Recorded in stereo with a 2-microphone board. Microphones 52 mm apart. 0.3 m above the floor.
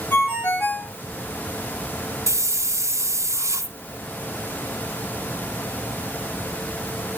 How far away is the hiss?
About 1.2 m.